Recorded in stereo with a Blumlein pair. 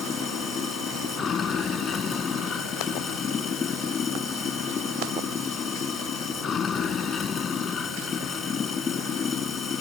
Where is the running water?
20° left.